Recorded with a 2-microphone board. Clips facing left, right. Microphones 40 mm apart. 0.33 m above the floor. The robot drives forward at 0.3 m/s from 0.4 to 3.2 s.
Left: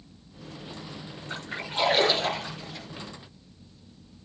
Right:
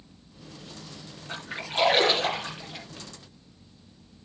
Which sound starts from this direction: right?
A splash, at 1.3 s.